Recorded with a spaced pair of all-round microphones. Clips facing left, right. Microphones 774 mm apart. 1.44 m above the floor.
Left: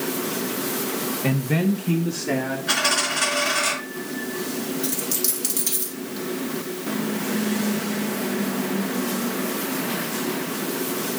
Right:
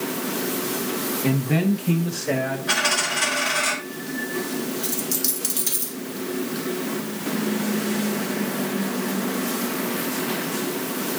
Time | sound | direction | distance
1.2 | a man speaking | 20° left (ahead or behind) | 0.7 m
2.7 | a dropped coin | 55° left (ahead or behind) | 6 m
4.8 | a dropped coin | 10° left (ahead or behind) | 1.2 m